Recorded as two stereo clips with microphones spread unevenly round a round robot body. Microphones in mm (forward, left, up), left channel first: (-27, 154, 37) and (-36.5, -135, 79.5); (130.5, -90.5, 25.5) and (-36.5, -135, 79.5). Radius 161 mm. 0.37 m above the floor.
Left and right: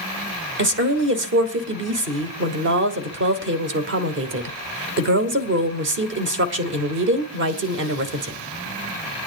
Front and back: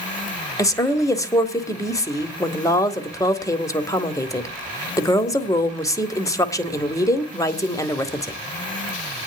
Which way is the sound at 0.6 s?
40° right.